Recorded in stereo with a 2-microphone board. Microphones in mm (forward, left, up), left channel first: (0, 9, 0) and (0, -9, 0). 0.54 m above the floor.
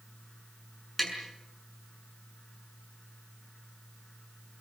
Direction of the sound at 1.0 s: Centre (ahead or behind).